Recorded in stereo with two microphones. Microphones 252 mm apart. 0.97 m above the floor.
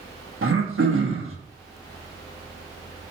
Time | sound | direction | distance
0.4 | throat clearing | 55° right (ahead or behind) | 1.0 m